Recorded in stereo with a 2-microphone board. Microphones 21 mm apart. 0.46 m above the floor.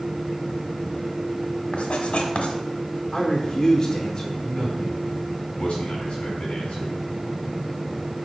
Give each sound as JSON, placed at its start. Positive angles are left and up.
{"t": 1.7, "sound": "writing", "side_deg": 75, "distance_m": 1.2}
{"t": 3.1, "sound": "a man speaking", "side_deg": 30, "distance_m": 0.9}
{"t": 4.4, "sound": "a man speaking", "side_deg": 65, "distance_m": 3.0}